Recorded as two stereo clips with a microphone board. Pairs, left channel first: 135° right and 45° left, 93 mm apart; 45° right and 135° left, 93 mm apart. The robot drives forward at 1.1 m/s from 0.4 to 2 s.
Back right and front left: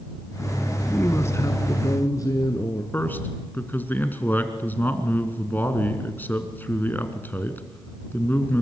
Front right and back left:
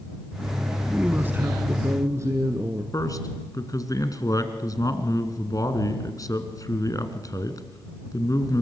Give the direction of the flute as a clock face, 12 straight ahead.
I don't hear a flute.